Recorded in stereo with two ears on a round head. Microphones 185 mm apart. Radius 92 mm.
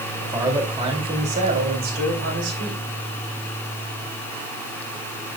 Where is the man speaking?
15° right (ahead or behind), 3.5 m; by 2.9 s 65° right (ahead or behind), 3.5 m.